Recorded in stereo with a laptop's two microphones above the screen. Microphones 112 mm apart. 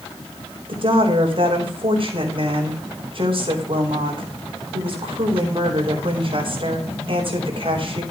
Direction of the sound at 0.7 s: 55° right (ahead or behind).